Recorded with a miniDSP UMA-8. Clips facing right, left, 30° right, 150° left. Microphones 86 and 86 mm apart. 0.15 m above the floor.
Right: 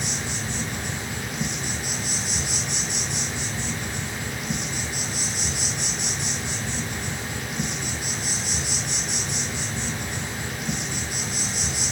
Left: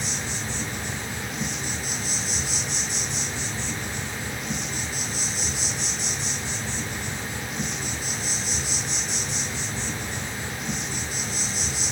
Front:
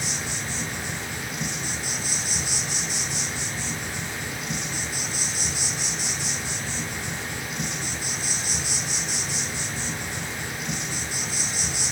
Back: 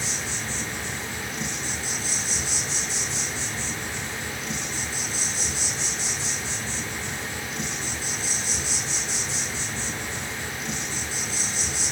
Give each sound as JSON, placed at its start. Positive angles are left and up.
{"t": 0.0, "sound": "an insect", "azimuth_deg": -105, "distance_m": 0.9}